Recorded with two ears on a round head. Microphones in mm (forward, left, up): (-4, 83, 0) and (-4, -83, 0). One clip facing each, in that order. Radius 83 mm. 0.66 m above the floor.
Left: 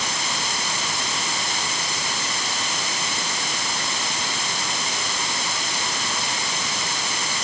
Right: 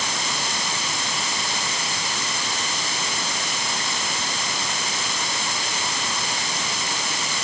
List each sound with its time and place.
Only background noise.